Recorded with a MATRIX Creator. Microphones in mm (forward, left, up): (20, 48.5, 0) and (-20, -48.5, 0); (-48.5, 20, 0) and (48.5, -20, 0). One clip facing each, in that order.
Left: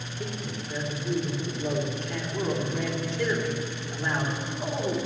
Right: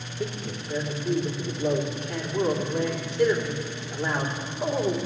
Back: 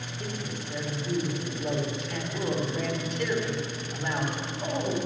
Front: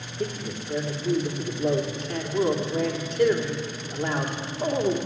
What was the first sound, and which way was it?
A man speaking, 35° right.